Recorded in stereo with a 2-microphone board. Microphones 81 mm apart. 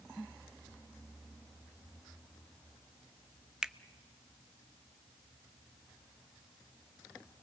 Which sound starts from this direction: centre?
A finger snap, at 3.6 s.